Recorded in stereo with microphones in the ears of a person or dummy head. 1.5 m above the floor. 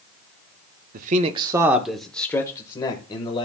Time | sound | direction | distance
0.9 | a man speaking | 50° right (ahead or behind) | 0.6 m